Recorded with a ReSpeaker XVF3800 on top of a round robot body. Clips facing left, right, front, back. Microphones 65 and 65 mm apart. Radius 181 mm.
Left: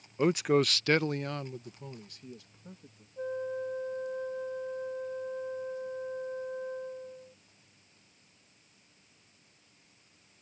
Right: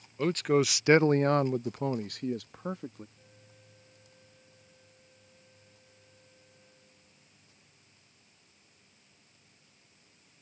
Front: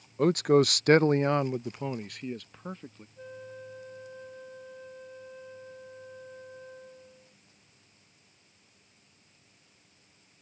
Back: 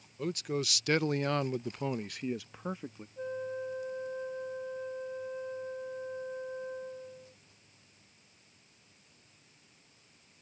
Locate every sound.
0.2 s a man speaking: 15° left; by 3.1 s 100° right
3.2 s a flute: 110° left